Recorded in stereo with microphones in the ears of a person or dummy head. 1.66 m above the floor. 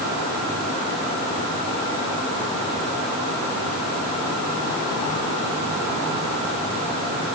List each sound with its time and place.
Only background noise.